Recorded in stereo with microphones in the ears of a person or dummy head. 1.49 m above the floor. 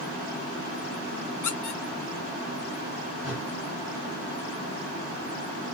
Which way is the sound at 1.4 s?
15° left (ahead or behind).